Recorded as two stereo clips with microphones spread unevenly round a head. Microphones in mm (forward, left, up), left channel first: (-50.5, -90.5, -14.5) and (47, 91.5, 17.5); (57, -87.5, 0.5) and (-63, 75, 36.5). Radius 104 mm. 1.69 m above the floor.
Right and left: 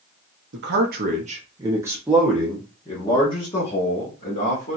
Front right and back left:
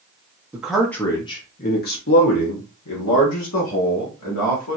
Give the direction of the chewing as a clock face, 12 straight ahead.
I don't hear chewing.